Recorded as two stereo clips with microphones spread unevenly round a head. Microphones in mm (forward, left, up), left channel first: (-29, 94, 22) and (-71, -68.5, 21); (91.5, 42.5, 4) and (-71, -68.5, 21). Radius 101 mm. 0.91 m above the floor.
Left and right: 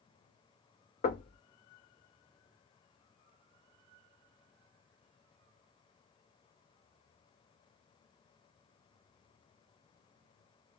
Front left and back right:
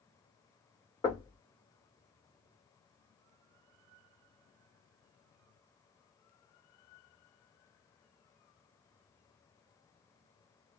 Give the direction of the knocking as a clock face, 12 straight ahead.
8 o'clock.